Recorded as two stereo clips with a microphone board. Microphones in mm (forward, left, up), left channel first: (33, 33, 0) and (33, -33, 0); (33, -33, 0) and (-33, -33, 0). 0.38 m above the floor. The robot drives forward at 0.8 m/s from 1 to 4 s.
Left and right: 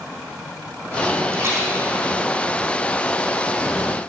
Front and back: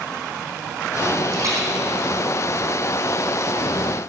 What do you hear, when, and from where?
1.3 s a rattle: 135° right, 3.5 m; by 1.7 s 140° right, 3.5 m